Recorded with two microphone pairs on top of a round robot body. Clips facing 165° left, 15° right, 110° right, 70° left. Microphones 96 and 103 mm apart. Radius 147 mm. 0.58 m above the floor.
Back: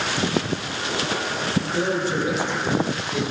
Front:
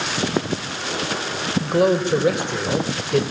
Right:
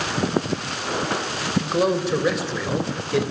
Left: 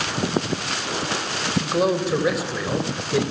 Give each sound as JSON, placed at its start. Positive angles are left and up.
{"t": 1.6, "sound": "a man speaking", "azimuth_deg": -15, "distance_m": 3.5}